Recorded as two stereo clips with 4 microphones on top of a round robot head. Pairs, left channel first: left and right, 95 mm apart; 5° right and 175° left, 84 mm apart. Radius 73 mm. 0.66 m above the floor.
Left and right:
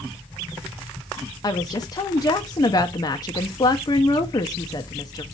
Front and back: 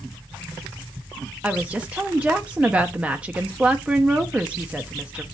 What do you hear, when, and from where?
1.4 s a woman speaking: 105° left, 0.6 m